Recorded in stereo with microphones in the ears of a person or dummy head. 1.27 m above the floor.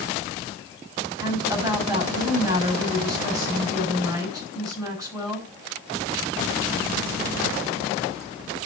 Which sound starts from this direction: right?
A woman speaking, at 1.2 s.